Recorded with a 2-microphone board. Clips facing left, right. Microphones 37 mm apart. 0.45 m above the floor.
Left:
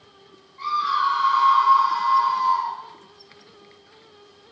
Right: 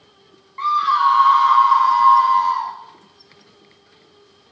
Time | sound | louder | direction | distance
0.6 | a scream | right 6 dB | 70° right (ahead or behind) | 3.5 m